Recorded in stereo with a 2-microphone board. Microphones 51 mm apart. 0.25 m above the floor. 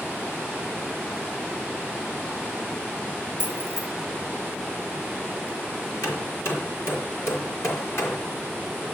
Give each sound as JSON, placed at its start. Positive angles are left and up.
{"t": 3.4, "sound": "keys jangling", "side_deg": 55, "distance_m": 4.0}
{"t": 6.0, "sound": "hammering", "side_deg": 65, "distance_m": 4.5}